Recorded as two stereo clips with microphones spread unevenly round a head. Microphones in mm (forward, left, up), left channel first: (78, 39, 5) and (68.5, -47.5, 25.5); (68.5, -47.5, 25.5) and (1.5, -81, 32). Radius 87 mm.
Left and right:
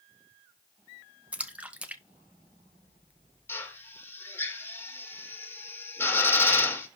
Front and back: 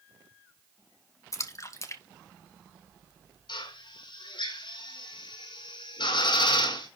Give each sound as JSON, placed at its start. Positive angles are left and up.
{"t": 1.3, "sound": "a splash", "azimuth_deg": -20, "distance_m": 1.8}
{"t": 3.5, "sound": "a drill", "azimuth_deg": 20, "distance_m": 6.5}